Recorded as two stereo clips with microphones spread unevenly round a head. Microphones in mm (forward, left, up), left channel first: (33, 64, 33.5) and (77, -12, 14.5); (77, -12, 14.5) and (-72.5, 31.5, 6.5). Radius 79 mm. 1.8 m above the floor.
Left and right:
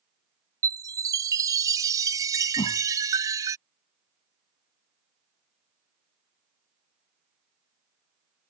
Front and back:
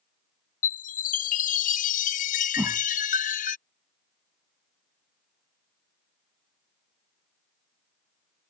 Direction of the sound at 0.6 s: 5° right.